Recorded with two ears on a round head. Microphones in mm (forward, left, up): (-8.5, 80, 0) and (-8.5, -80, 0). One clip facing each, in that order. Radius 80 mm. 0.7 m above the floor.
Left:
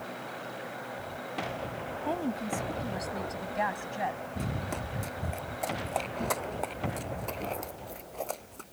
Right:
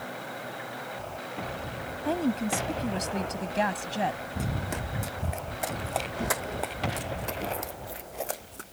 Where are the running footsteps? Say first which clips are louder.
Right 2 dB; 5° right (ahead or behind).